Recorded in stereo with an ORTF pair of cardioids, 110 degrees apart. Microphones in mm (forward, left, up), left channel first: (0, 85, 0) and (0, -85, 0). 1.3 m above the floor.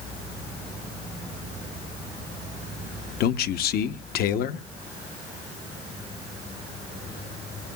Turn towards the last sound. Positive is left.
turn(degrees=65)